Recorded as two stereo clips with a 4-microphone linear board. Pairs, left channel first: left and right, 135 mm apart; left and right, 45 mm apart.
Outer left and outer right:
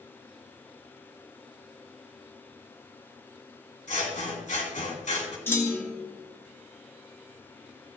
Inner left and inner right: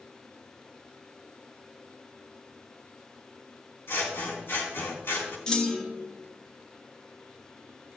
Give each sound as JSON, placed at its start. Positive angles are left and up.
{"t": 3.9, "sound": "scissors", "side_deg": 65, "distance_m": 2.5}
{"t": 5.5, "sound": "a clunk", "side_deg": 15, "distance_m": 1.0}